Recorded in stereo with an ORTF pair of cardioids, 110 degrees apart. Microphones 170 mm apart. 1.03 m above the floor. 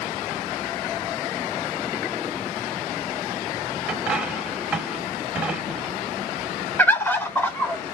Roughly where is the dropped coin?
Ahead.